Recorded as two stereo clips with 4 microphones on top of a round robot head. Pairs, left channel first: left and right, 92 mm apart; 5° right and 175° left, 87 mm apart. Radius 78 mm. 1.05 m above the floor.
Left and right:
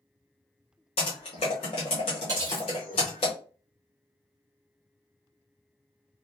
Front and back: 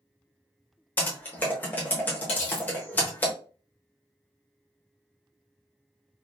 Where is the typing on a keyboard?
55° left, 0.9 m.